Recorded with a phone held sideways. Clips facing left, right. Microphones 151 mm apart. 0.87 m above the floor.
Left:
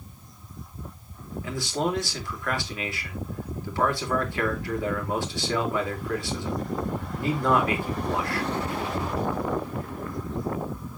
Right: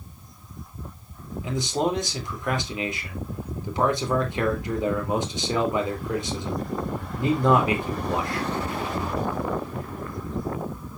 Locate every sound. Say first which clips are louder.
1.4 s a man speaking: right 3 dB; 20° right (ahead or behind), 3 m